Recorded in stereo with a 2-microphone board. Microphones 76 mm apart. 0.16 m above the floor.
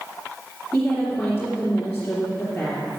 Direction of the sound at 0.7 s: 10° left (ahead or behind).